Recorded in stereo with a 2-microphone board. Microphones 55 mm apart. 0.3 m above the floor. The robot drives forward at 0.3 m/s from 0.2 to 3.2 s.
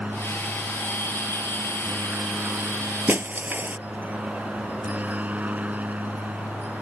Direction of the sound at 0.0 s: 30° right (ahead or behind).